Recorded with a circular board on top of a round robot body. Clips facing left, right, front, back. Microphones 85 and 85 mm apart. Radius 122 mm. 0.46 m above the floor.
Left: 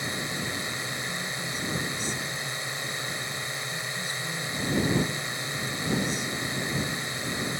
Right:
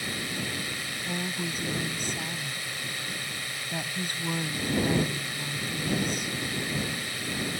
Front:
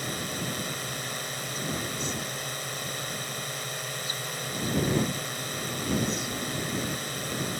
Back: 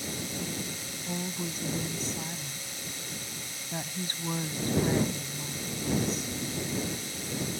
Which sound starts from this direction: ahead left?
A drone, at 0.0 s.